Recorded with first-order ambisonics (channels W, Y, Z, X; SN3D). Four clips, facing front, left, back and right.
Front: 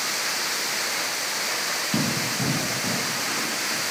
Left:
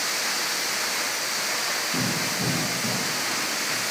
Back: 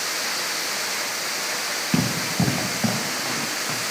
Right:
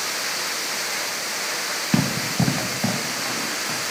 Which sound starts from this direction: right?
Running footsteps, at 1.9 s.